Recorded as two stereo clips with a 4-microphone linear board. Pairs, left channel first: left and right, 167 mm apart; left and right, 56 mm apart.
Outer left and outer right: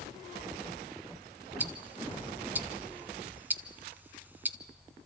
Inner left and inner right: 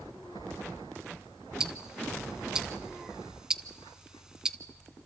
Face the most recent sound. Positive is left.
turn(degrees=-10)  # may be behind; listen again after turning